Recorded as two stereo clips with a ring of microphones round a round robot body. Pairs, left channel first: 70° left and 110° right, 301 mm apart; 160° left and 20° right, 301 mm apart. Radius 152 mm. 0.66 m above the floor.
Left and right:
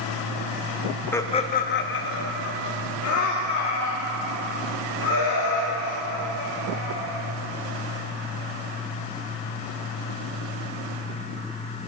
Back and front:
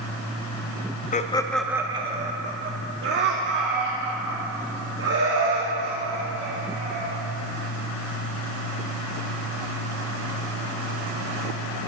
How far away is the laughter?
About 0.6 m.